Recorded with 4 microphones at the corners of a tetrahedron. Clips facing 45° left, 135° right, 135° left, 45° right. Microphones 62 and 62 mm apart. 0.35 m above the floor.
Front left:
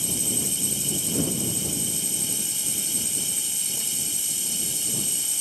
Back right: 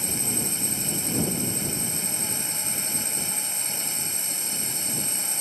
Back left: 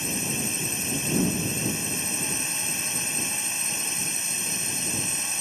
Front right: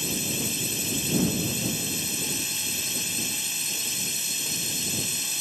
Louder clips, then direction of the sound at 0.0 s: Even, back left 1 dB; 170° right.